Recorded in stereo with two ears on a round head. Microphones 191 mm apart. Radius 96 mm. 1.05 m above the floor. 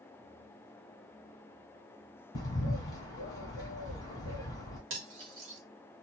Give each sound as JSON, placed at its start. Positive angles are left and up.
{"t": 2.4, "sound": "a bird", "side_deg": 20, "distance_m": 1.3}
{"t": 4.9, "sound": "cutlery clinking", "side_deg": -65, "distance_m": 1.1}